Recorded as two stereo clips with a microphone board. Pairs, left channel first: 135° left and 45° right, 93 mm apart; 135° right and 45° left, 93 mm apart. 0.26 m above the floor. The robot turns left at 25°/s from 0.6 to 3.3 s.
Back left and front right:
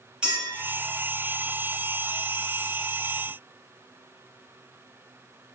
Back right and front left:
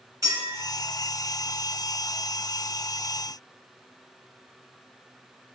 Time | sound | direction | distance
0.2 | a clink | 30° left | 1.0 m